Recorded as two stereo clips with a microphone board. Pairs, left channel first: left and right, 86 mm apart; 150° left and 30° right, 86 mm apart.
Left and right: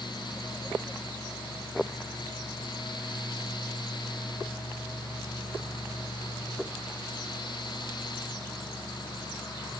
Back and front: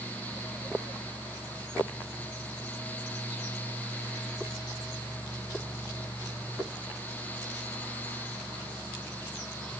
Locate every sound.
Only background noise.